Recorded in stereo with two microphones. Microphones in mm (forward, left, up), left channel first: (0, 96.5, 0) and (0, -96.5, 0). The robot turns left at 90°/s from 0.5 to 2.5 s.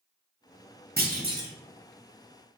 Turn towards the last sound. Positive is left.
turn(degrees=100)